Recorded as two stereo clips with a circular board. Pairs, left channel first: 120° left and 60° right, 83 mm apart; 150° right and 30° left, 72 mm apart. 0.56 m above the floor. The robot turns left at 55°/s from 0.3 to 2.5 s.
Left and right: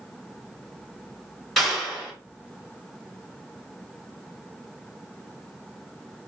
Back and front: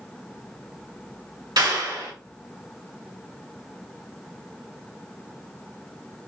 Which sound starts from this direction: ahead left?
A clap, at 1.6 s.